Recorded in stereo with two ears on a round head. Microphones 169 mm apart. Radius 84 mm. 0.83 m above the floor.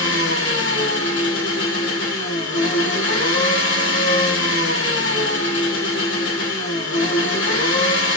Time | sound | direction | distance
0.0 | an engine running | 70° left (ahead or behind) | 0.9 m